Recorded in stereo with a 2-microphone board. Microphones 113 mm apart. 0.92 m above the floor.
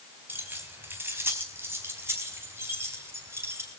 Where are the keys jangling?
20° right (ahead or behind), 4 m.